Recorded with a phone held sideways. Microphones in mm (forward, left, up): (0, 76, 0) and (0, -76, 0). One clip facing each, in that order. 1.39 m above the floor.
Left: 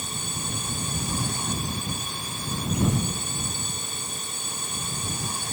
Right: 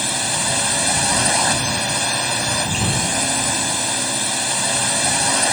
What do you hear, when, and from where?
0.0 s a drone: 75° right (ahead or behind)